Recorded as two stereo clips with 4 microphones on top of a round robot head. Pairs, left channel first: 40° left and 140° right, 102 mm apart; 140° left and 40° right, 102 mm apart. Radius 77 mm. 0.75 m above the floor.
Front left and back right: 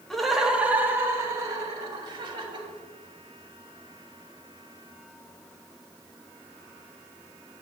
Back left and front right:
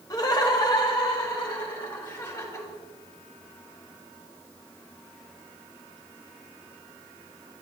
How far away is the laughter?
About 1.3 m.